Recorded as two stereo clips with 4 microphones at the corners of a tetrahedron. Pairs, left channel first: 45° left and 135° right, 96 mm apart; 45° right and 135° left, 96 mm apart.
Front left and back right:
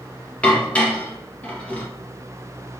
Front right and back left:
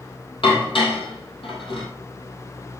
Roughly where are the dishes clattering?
Ahead right.